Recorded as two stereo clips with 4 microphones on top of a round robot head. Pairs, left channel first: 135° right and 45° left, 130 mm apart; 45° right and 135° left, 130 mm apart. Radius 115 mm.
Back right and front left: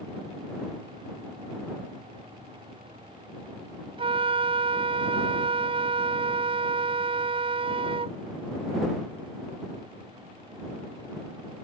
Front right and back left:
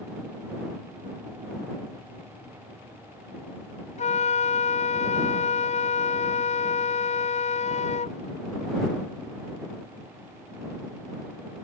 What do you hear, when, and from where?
4.0 s a flute: 5° right